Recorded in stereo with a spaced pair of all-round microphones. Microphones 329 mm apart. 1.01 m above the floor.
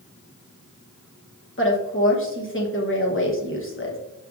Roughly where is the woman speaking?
Left.